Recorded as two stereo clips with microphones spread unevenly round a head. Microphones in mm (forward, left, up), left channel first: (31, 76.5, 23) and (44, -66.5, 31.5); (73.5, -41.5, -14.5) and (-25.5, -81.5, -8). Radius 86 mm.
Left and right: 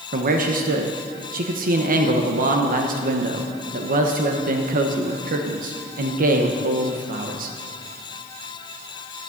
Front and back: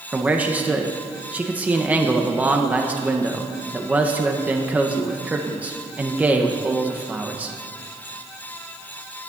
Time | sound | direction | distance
0.1 | a man speaking | 80° right | 1.3 m